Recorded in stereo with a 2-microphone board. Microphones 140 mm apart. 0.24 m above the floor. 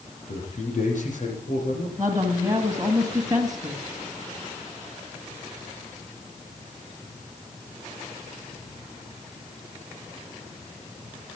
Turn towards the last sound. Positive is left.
turn(degrees=-25)  # may be behind; listen again after turning